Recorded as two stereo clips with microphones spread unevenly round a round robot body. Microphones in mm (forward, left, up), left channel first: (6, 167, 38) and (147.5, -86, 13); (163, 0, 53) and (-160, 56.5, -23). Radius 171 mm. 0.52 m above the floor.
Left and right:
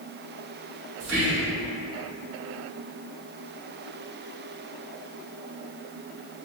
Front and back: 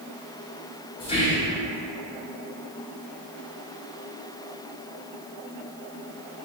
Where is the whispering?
90° right, 1.3 m.